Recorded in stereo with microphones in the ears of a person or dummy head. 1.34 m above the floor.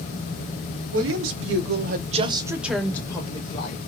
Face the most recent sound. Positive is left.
turn(degrees=30)  # may be behind; listen again after turning